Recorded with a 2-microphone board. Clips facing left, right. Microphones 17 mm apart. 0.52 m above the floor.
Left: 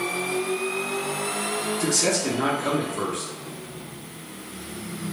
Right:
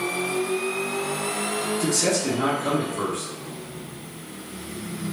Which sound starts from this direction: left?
A man speaking, at 1.8 s.